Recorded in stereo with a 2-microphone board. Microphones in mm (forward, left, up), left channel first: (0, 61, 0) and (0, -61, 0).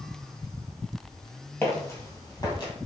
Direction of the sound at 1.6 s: 20° left (ahead or behind).